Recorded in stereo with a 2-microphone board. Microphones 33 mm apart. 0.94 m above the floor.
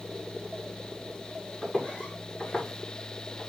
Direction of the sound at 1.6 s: 15° left (ahead or behind).